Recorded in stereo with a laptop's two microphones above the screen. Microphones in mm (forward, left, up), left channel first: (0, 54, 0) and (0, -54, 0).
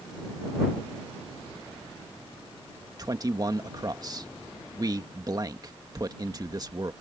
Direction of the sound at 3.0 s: 35° right (ahead or behind).